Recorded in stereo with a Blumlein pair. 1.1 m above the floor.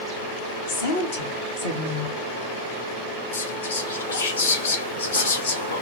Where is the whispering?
65° left, 0.7 m.